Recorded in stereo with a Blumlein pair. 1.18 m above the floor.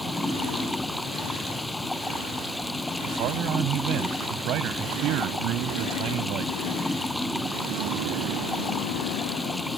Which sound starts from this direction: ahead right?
A man speaking, at 3.0 s.